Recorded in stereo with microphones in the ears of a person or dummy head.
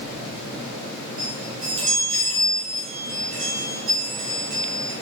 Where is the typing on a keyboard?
No typing on a keyboard in this recording.